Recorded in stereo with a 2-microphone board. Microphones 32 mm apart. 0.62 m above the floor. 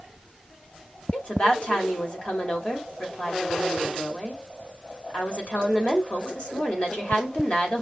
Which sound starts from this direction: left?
A woman speaking, at 1.1 s.